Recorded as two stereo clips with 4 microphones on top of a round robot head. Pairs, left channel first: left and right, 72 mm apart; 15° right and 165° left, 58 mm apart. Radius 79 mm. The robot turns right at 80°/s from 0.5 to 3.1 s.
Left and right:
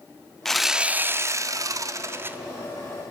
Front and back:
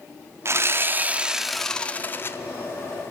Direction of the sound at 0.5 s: 175° left.